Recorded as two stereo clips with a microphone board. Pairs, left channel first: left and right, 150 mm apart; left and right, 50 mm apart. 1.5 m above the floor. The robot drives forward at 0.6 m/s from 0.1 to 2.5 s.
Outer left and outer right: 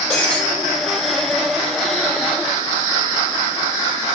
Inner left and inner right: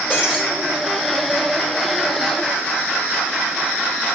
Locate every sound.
0.1 s breaking glass: 5° left (ahead or behind), 6 m